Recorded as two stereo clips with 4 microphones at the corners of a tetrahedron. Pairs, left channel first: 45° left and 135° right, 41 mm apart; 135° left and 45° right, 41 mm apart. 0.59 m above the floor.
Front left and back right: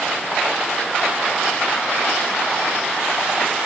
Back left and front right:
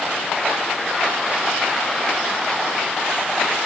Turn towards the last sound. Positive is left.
No sound to turn to.